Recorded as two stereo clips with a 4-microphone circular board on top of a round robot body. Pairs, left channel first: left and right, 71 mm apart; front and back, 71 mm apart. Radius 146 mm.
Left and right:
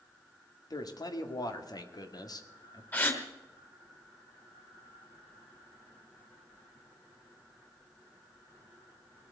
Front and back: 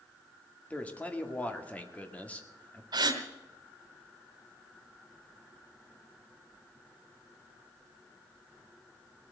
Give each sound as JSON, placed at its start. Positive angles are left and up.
{"t": 0.7, "sound": "a man speaking", "azimuth_deg": 70, "distance_m": 2.0}
{"t": 2.9, "sound": "a gasp", "azimuth_deg": 155, "distance_m": 2.5}